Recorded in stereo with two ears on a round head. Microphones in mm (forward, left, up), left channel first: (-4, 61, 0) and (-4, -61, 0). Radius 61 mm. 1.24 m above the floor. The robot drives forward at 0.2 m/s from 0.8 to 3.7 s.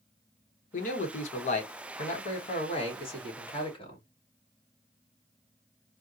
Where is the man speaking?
60° left (ahead or behind), 0.9 m; by 4.0 s 35° left (ahead or behind), 1.3 m.